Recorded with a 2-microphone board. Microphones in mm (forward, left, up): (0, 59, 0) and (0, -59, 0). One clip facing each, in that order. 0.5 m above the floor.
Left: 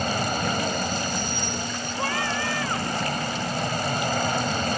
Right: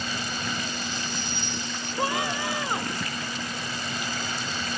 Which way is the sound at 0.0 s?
50° left (ahead or behind).